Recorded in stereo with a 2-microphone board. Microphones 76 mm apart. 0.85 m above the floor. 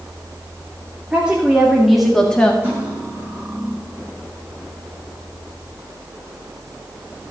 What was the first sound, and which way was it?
A woman speaking, 15° right (ahead or behind).